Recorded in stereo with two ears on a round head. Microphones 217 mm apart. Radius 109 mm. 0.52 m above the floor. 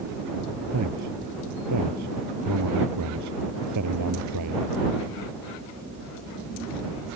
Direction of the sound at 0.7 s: 80° right.